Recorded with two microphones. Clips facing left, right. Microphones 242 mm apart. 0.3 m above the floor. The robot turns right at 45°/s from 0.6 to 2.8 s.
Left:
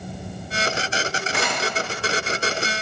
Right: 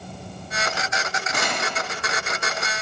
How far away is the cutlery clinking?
About 1.4 m.